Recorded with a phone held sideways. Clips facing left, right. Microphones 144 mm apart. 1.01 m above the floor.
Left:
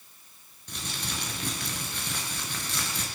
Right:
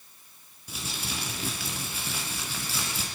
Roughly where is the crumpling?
Centre.